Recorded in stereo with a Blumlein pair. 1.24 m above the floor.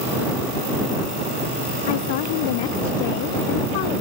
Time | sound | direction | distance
1.9 | a woman speaking | 50° left | ?